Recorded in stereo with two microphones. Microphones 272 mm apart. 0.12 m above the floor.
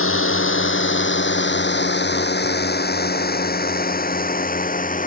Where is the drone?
50° left (ahead or behind); by 5.1 s 30° left (ahead or behind).